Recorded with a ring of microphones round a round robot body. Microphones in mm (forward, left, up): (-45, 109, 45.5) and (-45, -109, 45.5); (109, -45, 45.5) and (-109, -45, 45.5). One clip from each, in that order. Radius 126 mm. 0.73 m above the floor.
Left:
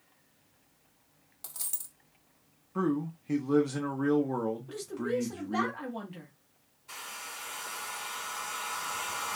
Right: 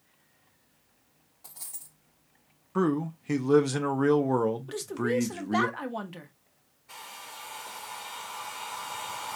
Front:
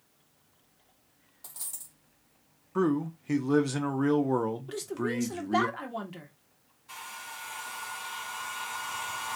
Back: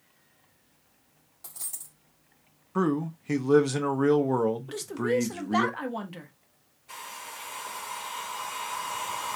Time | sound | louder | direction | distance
1.4 | a dropped coin | left 5 dB, back 2 dB | 95° left | 1.9 m
2.8 | a man speaking | right 4 dB, back 1 dB | 100° right | 0.6 m
4.7 | a woman speaking | right 4 dB, back 5 dB | 105° right | 1.0 m
6.9 | a hair dryer | left 2 dB, back 1 dB | 95° left | 2 m